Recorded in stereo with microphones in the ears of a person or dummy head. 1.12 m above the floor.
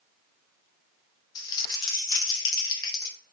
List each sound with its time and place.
1.4 s crumpling: 25° left (ahead or behind), 0.6 m